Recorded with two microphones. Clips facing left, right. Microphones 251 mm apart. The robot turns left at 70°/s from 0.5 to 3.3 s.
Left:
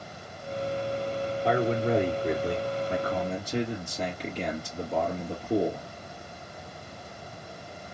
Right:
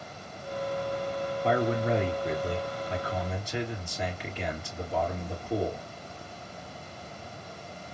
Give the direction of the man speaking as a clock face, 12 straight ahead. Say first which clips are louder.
Left 1 dB; 6 o'clock.